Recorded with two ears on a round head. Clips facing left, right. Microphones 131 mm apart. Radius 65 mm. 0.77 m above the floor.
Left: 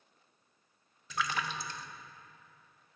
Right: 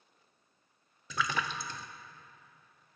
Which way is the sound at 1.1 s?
70° right (ahead or behind).